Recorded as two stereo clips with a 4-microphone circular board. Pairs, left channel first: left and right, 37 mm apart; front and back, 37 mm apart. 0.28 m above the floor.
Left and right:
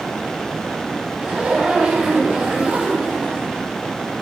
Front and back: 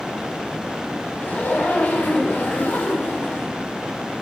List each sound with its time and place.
1.2 s a zipper: 15° right, 9.5 m